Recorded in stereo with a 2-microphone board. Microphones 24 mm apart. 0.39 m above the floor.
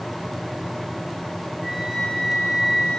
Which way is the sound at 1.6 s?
30° left (ahead or behind).